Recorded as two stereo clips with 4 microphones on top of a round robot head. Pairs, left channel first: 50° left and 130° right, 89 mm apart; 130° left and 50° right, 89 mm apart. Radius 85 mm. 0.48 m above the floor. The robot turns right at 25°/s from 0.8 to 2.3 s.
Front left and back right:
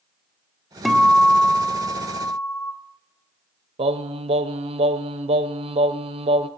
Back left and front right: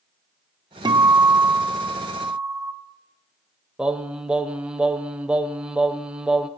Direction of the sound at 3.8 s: 130° right.